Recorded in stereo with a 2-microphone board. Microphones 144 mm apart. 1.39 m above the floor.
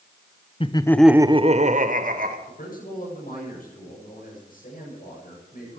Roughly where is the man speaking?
Left.